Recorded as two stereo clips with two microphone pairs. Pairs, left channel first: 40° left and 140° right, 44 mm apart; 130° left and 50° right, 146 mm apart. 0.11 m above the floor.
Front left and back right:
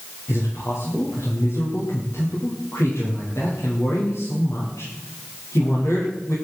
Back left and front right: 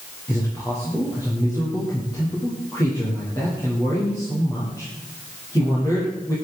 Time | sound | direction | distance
0.3 | a man speaking | 60° left | 9 m